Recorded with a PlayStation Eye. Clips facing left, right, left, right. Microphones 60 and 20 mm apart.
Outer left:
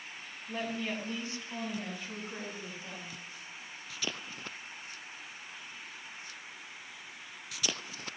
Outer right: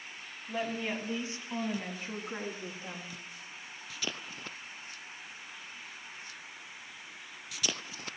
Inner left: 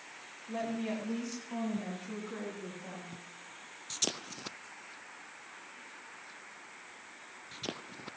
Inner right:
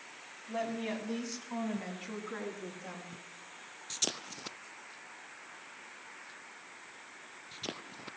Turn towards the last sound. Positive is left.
turn(degrees=-35)  # may be behind; listen again after turning